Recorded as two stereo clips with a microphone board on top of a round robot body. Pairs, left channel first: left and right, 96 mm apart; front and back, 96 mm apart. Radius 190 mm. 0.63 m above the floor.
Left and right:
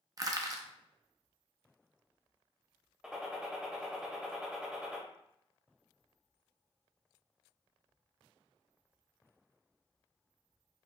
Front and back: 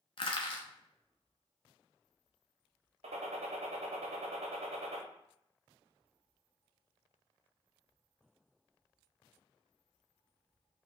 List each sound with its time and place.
0.2 s crushing: 35° right, 0.5 m
3.0 s a gunshot: 175° right, 0.6 m